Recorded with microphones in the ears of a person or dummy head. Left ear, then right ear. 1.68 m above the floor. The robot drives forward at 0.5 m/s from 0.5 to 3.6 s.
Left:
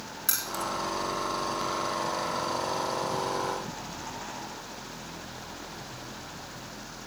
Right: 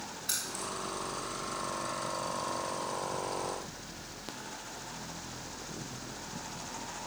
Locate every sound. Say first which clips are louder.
0.3 s keys jangling: left 6 dB; 55° left (ahead or behind), 2 m; by 0.7 s 50° left (ahead or behind), 2 m